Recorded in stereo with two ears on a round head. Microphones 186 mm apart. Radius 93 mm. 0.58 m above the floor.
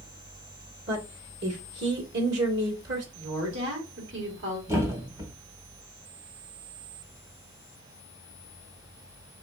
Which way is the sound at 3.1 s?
60° right (ahead or behind).